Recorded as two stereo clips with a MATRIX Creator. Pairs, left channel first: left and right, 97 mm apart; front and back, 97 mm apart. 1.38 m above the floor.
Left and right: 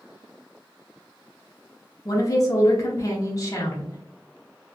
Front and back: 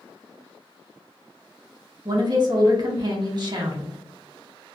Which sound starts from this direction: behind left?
A woman speaking, at 2.0 s.